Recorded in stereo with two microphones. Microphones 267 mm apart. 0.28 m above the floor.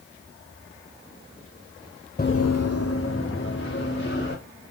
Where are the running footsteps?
35° left (ahead or behind), 0.6 m; by 4.4 s 40° left (ahead or behind), 3 m.